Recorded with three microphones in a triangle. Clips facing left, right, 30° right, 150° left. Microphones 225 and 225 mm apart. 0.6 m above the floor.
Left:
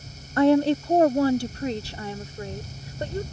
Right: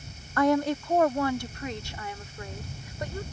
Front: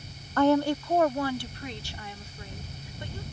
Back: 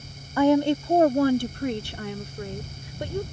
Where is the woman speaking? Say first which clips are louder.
Left 6 dB, back 3 dB; 80° left; by 3.2 s 145° left.